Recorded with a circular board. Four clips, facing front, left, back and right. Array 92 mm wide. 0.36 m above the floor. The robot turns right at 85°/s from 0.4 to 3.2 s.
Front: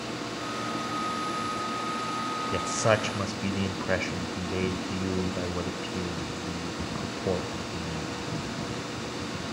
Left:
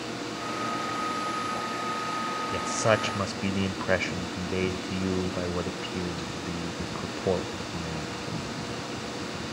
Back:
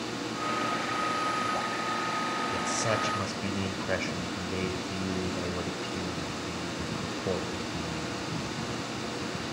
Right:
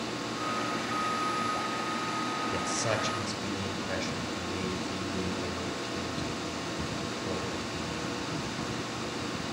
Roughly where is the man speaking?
Ahead.